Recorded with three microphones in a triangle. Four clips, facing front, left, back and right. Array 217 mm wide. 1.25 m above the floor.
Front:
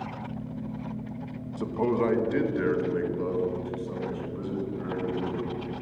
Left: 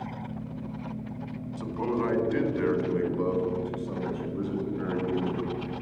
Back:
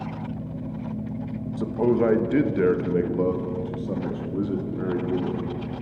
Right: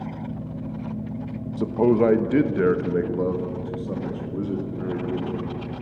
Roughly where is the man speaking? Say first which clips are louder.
Right 10 dB, back 4 dB; right.